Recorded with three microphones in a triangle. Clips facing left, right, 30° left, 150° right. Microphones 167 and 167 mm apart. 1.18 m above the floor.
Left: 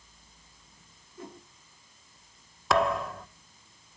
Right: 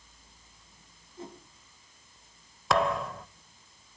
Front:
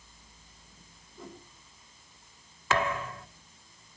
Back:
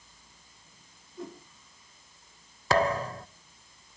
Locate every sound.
1.2 s a whoosh: 150° right, 4.5 m
2.7 s a thud: straight behind, 0.7 m